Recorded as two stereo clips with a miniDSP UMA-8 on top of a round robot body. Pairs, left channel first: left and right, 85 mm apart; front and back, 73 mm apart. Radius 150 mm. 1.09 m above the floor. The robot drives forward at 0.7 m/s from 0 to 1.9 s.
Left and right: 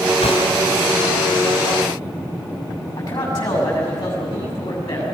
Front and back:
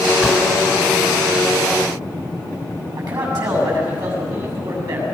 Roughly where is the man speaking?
Behind left.